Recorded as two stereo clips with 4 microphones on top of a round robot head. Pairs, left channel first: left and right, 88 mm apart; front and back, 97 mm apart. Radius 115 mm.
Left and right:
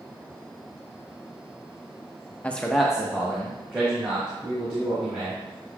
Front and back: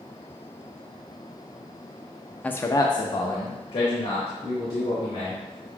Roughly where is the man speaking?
Ahead left.